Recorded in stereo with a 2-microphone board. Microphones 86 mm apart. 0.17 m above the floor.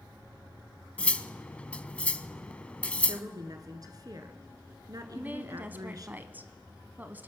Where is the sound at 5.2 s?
20° right (ahead or behind), 1.0 m.